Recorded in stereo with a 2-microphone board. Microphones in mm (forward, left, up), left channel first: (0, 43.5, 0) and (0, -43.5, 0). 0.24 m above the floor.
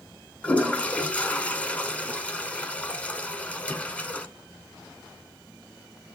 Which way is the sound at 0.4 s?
15° left (ahead or behind).